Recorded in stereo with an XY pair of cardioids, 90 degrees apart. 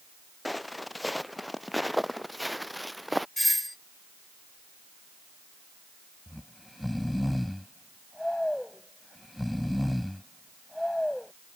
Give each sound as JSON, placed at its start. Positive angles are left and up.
{"t": 0.5, "sound": "footsteps", "azimuth_deg": 10}
{"t": 3.4, "sound": "a doorbell", "azimuth_deg": 5}
{"t": 6.3, "sound": "snoring", "azimuth_deg": 10}